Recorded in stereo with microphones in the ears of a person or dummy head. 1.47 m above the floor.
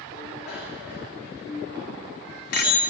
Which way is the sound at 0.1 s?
55° left (ahead or behind).